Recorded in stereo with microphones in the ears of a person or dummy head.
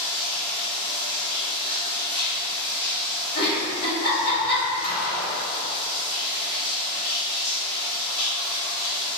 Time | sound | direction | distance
0.0 | running water | 45° left (ahead or behind) | 1.1 m
3.4 | a giggle | 50° left (ahead or behind) | 1.2 m
4.8 | a gunshot | 45° left (ahead or behind) | 0.8 m